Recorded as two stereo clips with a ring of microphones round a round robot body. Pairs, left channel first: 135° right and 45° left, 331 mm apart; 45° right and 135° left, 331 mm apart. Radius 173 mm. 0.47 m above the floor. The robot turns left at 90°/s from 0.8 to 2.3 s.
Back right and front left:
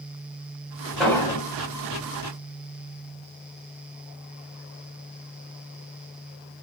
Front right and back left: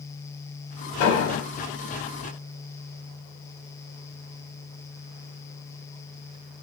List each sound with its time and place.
1.0 s an explosion: 45° right, 1.5 m; by 1.5 s 90° right, 1.5 m